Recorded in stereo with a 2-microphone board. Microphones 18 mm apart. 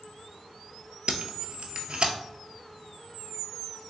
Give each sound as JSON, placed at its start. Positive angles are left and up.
{"t": 1.1, "sound": "tape being pulled", "side_deg": -55, "distance_m": 0.6}